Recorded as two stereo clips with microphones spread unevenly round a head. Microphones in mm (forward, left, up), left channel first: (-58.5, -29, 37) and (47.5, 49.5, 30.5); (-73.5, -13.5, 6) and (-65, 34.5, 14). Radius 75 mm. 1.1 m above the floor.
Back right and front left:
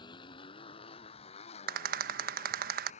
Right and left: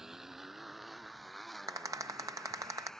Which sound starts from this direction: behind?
A motorcycle, at 0.0 s.